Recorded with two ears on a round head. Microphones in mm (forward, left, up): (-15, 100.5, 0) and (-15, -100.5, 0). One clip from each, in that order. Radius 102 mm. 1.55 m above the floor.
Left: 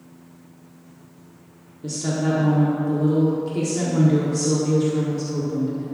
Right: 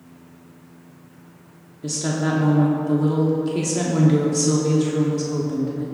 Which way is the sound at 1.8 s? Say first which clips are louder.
Right 1 dB; 20° right (ahead or behind).